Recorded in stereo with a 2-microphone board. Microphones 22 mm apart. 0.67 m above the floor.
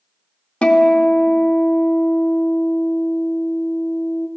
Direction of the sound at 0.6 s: 70° left (ahead or behind).